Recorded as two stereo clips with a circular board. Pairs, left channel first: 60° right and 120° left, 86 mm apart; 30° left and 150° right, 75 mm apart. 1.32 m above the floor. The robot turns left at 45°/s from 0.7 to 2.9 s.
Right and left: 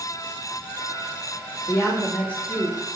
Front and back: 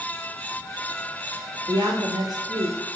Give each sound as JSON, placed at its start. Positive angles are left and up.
{"t": 1.7, "sound": "a woman speaking", "azimuth_deg": -105, "distance_m": 2.5}